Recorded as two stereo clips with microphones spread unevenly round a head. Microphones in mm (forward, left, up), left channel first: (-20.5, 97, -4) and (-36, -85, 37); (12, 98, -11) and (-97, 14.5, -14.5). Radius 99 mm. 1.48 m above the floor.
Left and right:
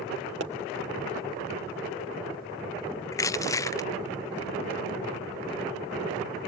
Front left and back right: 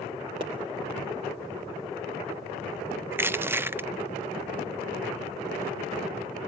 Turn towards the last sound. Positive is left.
turn(degrees=145)